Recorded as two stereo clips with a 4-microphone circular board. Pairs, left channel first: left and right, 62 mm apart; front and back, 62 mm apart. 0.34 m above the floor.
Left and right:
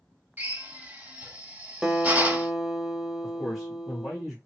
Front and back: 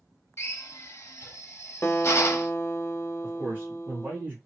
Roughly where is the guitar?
Ahead.